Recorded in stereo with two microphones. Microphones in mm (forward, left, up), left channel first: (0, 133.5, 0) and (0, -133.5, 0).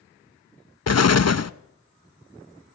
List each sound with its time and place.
0.9 s an explosion: 70° left (ahead or behind), 0.7 m